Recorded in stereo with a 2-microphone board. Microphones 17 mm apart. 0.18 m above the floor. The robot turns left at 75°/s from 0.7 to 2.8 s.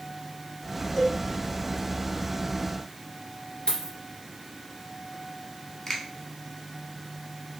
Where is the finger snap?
30° left (ahead or behind), 0.9 m.